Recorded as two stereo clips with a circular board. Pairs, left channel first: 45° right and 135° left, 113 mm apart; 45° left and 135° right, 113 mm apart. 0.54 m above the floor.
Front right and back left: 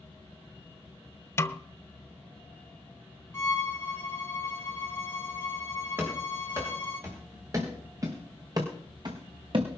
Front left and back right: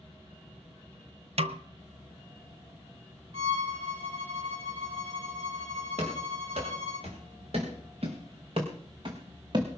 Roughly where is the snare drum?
Right.